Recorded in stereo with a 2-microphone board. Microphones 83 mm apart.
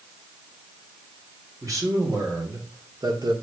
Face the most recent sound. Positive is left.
turn(degrees=-60)  # may be behind; listen again after turning